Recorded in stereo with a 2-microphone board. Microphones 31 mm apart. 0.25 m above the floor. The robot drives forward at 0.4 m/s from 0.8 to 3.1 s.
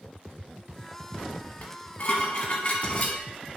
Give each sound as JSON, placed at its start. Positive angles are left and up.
{"t": 1.6, "sound": "dishes clattering", "side_deg": 55, "distance_m": 1.1}